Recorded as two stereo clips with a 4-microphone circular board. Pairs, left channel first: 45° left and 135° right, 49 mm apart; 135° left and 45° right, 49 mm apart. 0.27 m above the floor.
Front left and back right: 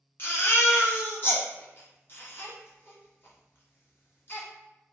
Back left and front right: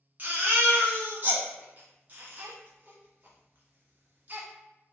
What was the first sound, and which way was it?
A baby crying, 5° left.